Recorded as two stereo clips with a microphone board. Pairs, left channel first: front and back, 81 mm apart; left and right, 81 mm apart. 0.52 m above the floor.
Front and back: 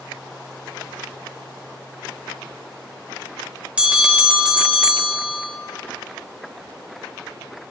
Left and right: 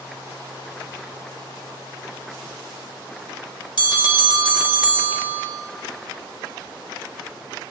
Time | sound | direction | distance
3.8 | a bell | 105° left | 1.5 m